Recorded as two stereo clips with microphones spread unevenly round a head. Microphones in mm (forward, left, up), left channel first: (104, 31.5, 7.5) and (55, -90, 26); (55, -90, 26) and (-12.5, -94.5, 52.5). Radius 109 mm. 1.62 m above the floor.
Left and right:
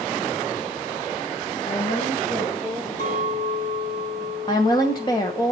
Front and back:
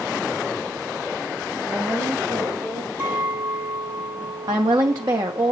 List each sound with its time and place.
1.7 s a woman speaking: 110° left, 1.3 m; by 2.9 s 140° left, 2.5 m
3.0 s a clink: 120° left, 7 m
4.5 s a woman speaking: 145° left, 1.0 m